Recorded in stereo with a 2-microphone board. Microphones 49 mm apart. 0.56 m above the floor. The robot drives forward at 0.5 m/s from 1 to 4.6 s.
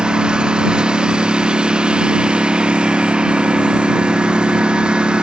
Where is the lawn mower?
20° right (ahead or behind).